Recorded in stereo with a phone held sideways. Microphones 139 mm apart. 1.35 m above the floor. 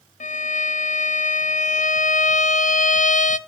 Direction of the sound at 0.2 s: 65° left (ahead or behind).